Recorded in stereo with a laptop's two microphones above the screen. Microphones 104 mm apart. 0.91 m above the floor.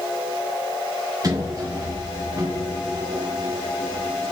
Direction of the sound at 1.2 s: 35° right (ahead or behind).